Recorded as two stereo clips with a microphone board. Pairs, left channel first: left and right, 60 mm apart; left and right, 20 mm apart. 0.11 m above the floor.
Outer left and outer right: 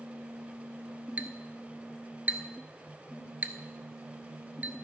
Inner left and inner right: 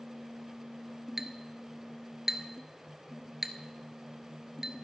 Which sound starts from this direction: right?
A clink, at 1.2 s.